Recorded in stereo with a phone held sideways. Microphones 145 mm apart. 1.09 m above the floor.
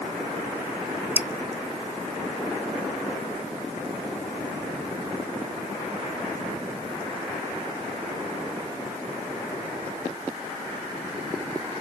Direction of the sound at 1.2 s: 15° right (ahead or behind).